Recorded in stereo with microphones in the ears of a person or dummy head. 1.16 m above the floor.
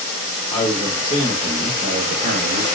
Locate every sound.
0.5 s a man speaking: 5° left (ahead or behind), 1.2 m; by 2.6 s 65° right (ahead or behind), 0.8 m